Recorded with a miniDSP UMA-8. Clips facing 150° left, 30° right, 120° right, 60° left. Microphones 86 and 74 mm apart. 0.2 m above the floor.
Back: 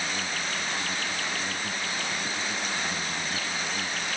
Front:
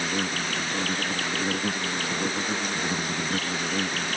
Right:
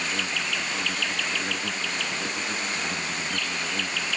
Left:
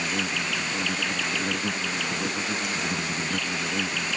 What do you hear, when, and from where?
0.0 s an insect: 20° right